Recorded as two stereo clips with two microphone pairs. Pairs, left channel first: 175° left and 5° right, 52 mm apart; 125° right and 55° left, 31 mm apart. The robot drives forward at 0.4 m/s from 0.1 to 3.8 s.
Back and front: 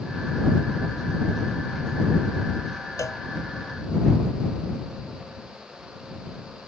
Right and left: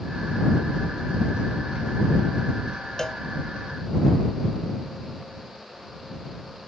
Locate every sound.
3.0 s a cowbell: 165° left